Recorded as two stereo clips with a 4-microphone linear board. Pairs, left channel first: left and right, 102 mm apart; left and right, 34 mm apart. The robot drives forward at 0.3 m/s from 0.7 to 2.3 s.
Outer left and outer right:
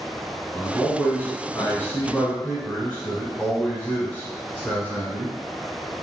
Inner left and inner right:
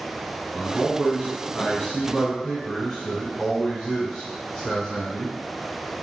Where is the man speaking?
20° left (ahead or behind), 1.1 m.